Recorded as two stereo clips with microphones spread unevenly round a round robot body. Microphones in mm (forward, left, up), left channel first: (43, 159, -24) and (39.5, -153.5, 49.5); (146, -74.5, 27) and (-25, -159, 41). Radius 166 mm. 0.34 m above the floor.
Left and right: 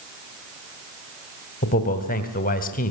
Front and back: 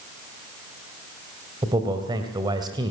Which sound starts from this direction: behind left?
A man speaking, at 1.6 s.